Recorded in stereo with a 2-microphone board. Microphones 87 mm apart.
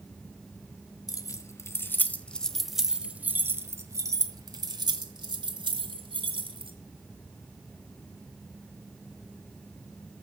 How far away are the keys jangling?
About 1.4 m.